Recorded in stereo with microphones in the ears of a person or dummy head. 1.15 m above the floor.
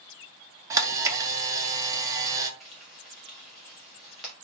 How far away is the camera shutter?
About 0.6 m.